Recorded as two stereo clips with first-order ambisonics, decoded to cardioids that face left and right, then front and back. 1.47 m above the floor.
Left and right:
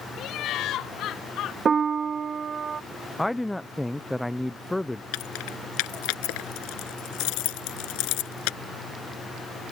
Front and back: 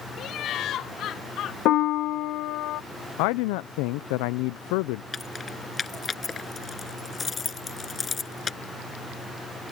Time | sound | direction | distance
0.2 | laughter | 45° left | ?
1.6 | a piano | 25° right | ?
3.2 | a man speaking | 5° left | ?
5.1 | keys jangling | 70° left | ?